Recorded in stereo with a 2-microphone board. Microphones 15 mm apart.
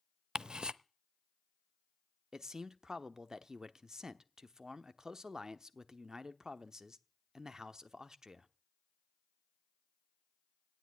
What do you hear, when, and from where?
0.3 s ticking: 75° right (ahead or behind), 0.5 m
2.3 s a man speaking: 45° right (ahead or behind), 1.0 m